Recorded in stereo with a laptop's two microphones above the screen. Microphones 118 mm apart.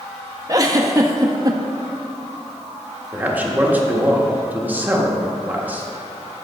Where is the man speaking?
15° right (ahead or behind), 1.2 m.